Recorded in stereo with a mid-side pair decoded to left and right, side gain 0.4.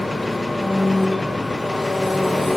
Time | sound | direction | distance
0.0 | an engine running | 10° left | 0.7 m